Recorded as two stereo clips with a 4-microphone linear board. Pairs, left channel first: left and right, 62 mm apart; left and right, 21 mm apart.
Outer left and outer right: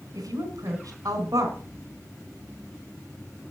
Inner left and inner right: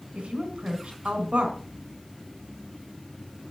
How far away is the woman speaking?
About 3.5 m.